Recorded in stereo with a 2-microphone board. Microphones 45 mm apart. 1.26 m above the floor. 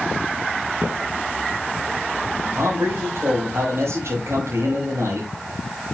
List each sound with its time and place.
0.8 s footsteps: 50° right (ahead or behind), 1.9 m
2.5 s a man speaking: 80° right, 4.5 m